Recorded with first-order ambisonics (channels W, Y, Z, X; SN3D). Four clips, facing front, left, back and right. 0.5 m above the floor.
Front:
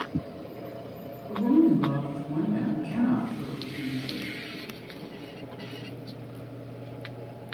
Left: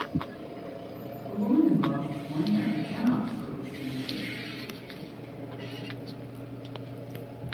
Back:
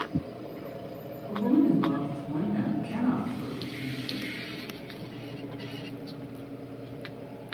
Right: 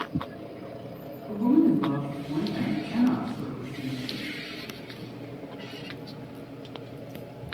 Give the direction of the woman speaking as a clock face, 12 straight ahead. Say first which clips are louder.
Right 2 dB, front 2 dB; 4 o'clock.